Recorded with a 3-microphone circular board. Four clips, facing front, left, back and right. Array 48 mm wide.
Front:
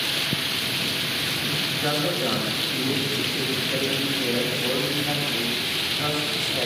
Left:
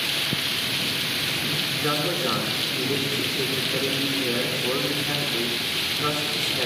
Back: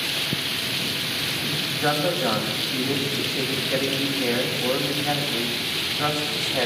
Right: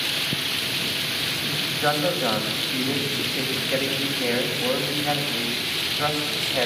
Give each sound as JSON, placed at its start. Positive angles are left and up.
{"t": 1.8, "sound": "a man speaking", "azimuth_deg": -120, "distance_m": 7.0}